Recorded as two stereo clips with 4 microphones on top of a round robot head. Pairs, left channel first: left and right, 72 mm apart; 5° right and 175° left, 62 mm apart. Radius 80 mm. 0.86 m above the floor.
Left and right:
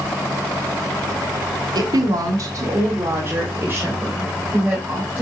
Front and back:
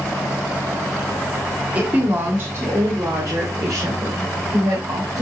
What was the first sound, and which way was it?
A woman speaking, 115° right.